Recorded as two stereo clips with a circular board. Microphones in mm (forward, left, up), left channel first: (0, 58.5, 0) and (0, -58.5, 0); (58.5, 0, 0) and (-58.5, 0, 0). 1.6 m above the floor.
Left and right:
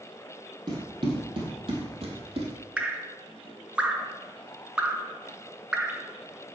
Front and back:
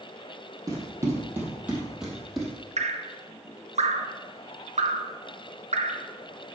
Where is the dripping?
170° right, 0.8 m.